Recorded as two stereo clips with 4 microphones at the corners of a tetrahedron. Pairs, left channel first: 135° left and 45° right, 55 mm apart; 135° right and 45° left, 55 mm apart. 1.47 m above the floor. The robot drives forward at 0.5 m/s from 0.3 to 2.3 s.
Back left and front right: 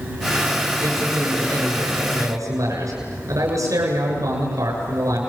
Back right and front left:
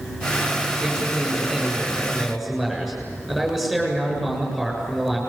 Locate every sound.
0.8 s a man speaking: 45° right, 8 m; by 5.2 s 50° right, 7.5 m